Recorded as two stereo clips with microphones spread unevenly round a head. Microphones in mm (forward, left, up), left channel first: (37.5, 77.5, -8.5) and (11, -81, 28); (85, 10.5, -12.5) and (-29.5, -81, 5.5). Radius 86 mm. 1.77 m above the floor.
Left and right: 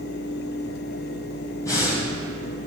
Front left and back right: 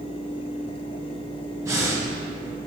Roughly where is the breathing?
Behind.